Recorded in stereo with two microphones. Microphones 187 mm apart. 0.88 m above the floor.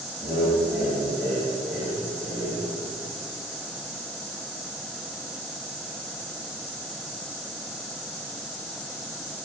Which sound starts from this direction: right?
Laughter, at 0.2 s.